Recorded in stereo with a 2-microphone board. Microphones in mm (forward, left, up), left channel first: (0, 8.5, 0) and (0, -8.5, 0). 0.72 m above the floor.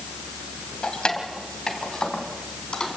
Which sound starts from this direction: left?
Keys jangling, at 0.8 s.